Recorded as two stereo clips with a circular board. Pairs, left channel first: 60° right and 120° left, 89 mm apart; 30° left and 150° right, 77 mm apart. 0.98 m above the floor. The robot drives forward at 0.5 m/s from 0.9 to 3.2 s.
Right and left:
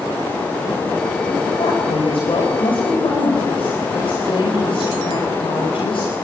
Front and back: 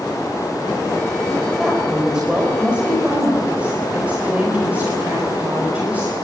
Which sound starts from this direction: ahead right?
A woman speaking, at 1.6 s.